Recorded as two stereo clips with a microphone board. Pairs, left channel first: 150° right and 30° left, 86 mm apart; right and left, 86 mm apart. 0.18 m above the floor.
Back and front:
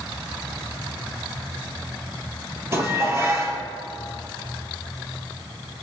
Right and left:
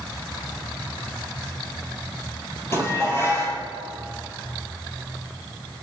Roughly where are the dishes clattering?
Ahead right.